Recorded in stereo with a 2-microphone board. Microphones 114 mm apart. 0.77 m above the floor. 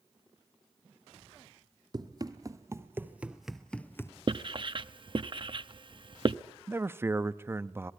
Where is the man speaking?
20° right (ahead or behind), 0.7 m.